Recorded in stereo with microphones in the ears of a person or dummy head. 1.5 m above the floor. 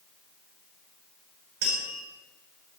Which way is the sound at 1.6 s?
55° right (ahead or behind).